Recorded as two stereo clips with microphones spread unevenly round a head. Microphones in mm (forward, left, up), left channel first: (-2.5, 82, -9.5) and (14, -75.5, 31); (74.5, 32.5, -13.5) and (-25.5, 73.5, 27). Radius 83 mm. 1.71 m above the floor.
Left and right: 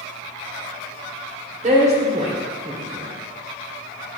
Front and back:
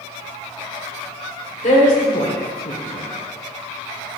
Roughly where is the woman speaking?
Ahead right.